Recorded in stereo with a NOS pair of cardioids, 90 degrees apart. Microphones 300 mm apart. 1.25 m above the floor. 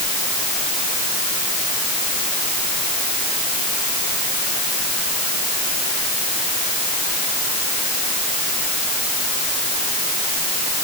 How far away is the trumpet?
No trumpet in this recording.